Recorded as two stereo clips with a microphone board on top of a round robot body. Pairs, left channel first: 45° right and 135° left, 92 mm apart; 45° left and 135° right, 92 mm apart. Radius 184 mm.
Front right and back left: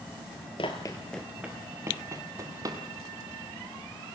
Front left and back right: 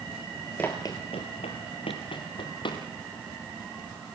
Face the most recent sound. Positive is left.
turn(degrees=85)